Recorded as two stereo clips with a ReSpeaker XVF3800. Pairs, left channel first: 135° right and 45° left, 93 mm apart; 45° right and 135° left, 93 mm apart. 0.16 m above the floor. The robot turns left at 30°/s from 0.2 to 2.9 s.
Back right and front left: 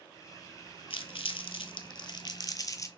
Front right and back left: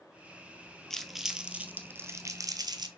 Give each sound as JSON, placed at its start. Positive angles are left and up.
{"t": 0.9, "sound": "crumpling", "azimuth_deg": -130, "distance_m": 0.6}